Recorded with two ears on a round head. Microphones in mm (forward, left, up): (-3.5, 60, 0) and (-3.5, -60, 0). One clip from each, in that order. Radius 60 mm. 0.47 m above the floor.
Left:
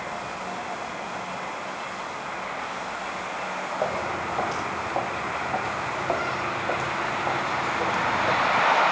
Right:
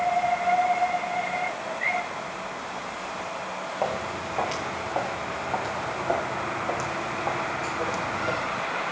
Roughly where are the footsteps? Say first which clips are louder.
Left 1 dB; right.